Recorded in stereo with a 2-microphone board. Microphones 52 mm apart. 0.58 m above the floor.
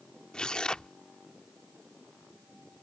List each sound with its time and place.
0.3 s tearing paper: 20° left (ahead or behind)